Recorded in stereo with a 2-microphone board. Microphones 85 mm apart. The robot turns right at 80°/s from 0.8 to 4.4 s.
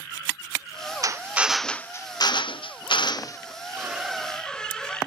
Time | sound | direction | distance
1.0 | a drill | 45° right | ?
3.8 | a squeak | 40° right | ?